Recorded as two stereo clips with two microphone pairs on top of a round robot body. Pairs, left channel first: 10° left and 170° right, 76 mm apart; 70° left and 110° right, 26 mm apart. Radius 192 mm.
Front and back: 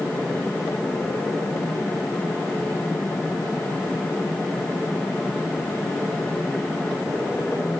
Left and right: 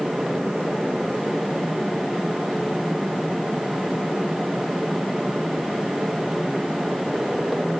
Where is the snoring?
No snoring in this recording.